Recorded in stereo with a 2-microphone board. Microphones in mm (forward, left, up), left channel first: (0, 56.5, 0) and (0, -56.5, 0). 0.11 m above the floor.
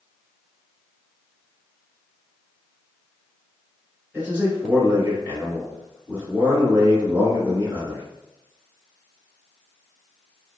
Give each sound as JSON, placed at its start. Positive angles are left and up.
{"t": 4.1, "sound": "a man speaking", "side_deg": -20, "distance_m": 1.8}